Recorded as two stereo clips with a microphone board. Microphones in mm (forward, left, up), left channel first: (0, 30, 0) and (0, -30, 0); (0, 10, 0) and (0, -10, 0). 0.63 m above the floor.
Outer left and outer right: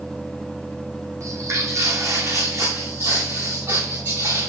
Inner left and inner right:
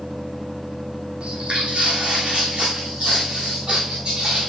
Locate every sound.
1.2 s footsteps: 60° right (ahead or behind), 1.4 m